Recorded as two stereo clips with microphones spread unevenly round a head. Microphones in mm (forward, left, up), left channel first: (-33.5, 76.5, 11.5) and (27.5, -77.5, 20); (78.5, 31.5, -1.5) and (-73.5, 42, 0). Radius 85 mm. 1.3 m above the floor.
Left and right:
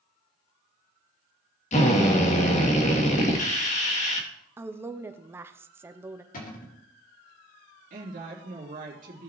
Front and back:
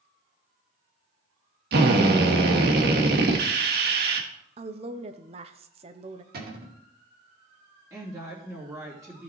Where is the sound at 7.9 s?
110° right, 2.5 m.